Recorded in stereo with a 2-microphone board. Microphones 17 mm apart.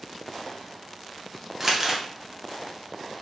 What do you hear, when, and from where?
1.6 s crumpling: 20° right (ahead or behind), 0.5 m